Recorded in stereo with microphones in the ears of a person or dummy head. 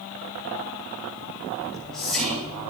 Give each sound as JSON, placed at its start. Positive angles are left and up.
{"t": 1.6, "sound": "whispering", "side_deg": 10, "distance_m": 7.5}